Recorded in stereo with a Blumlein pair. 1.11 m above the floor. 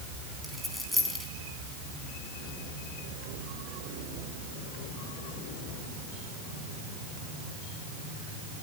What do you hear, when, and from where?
0.4 s a dropped coin: 5° left, 4 m